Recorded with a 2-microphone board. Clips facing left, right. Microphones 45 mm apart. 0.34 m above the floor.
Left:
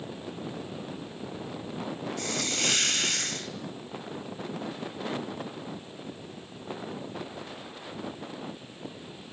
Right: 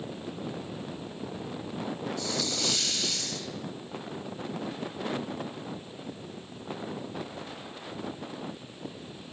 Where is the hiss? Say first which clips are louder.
Left 3 dB; 50° left (ahead or behind), 1.7 m.